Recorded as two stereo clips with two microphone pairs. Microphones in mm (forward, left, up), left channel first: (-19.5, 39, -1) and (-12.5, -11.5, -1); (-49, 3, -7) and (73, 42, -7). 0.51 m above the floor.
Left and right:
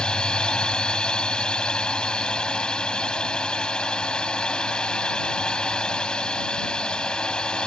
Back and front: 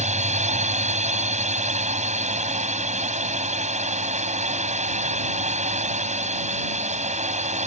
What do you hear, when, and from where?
0.0 s a drone: 25° left